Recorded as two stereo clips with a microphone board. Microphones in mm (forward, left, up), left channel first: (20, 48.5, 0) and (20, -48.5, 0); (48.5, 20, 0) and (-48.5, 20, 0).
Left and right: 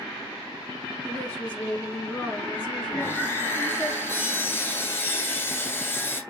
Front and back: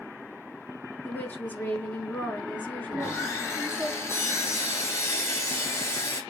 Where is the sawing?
40° left, 1.5 m.